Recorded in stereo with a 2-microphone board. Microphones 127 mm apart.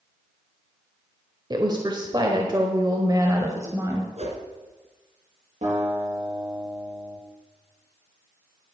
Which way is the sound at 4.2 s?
60° right (ahead or behind).